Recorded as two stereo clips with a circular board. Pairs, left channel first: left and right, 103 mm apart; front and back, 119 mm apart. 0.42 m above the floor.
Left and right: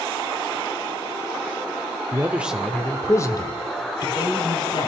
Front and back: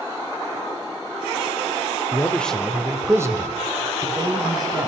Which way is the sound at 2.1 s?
55° right.